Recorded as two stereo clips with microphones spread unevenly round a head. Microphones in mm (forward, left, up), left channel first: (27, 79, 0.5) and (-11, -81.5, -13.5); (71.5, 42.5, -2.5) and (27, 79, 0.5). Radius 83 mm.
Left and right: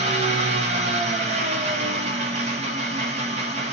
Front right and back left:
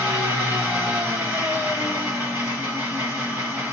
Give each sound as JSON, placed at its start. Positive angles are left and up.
{"t": 0.0, "sound": "an engine running", "azimuth_deg": -155, "distance_m": 1.0}